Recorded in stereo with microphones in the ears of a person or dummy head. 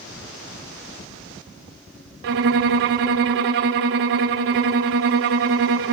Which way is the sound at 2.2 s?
45° right (ahead or behind).